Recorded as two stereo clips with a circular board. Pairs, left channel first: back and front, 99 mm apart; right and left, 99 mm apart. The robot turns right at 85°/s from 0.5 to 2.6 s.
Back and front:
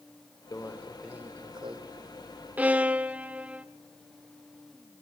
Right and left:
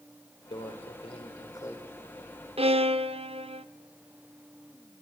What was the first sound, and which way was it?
A microwave, 125° right.